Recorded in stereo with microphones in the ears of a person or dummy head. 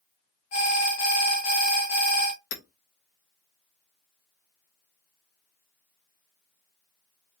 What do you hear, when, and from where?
0.5 s an alarm: 45° left (ahead or behind), 0.8 m
2.5 s hammering: 60° left (ahead or behind), 0.7 m